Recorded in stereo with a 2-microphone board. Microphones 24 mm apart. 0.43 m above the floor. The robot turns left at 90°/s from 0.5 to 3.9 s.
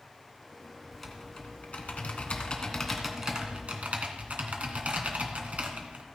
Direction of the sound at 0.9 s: 175° right.